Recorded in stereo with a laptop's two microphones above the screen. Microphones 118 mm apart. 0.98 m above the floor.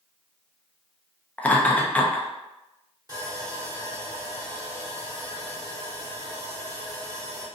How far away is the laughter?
About 0.6 m.